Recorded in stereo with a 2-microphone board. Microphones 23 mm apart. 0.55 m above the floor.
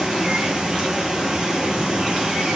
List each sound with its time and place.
0.0 s running water: 35° right (ahead or behind), 1.4 m